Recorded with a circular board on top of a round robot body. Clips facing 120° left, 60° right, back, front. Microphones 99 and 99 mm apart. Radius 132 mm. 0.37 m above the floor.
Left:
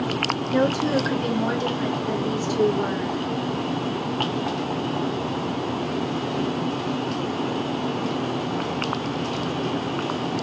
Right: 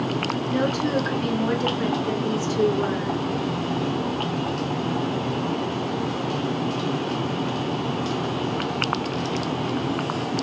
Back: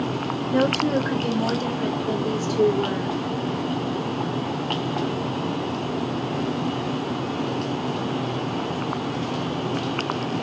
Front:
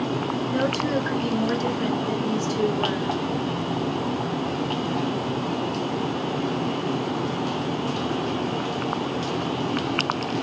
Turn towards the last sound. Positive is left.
turn(degrees=-155)